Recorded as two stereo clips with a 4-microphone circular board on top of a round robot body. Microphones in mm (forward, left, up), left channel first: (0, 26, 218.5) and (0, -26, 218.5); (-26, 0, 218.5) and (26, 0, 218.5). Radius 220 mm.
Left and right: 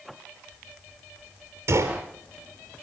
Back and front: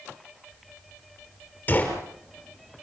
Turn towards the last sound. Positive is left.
turn(degrees=-120)